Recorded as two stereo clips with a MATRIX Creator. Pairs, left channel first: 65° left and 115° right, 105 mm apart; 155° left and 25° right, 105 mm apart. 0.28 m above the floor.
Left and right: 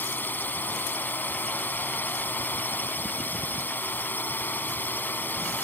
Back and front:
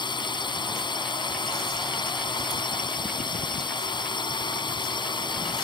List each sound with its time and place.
0.0 s a drone: 135° left